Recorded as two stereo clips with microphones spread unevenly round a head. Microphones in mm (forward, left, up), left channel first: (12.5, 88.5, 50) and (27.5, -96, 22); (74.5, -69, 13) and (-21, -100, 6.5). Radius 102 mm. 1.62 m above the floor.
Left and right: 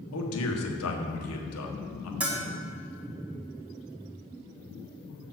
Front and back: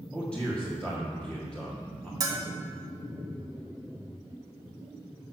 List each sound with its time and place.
0.1 s a man speaking: 105° left, 1.5 m
2.2 s a bell: straight behind, 1.1 m